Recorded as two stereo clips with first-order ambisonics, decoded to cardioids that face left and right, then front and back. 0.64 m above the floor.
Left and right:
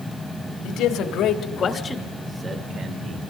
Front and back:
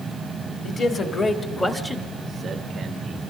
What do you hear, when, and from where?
0.6 s a man speaking: 60° left, 2 m; by 3.2 s 125° right, 1.8 m